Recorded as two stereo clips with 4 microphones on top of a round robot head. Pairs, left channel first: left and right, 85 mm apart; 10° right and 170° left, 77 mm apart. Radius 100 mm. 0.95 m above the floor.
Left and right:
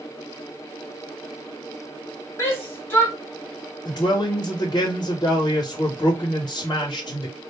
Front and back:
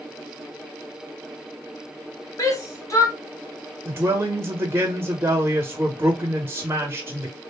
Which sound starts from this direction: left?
A man speaking, at 3.9 s.